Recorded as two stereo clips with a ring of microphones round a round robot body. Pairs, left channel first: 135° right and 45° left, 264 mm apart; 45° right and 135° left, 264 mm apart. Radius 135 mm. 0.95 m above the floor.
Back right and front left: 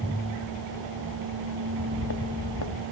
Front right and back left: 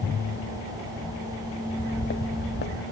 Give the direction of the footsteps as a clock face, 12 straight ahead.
3 o'clock.